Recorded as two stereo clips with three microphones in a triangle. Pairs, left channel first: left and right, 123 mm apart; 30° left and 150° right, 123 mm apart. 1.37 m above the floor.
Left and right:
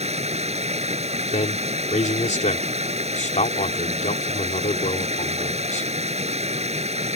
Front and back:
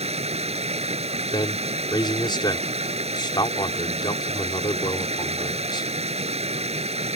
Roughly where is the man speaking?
Left.